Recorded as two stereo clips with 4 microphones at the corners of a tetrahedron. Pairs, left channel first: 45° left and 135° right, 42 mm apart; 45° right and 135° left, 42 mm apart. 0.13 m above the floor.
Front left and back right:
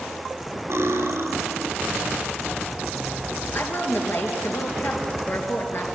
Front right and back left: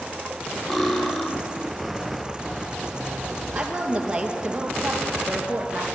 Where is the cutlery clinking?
120° right, 2.5 m.